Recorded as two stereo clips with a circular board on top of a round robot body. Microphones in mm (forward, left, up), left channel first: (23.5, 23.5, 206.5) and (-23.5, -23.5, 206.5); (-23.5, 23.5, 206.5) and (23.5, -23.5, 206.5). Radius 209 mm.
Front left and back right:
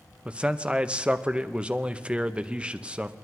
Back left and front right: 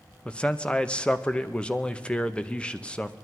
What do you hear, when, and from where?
0.2 s a man speaking: straight behind, 1.1 m